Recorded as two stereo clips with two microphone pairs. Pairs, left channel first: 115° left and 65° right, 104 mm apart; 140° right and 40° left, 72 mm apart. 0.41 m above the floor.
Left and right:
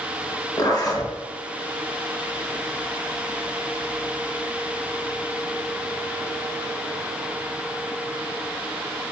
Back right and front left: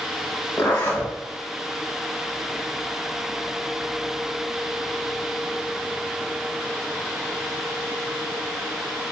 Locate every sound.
0.6 s a zipper: 165° left, 1.1 m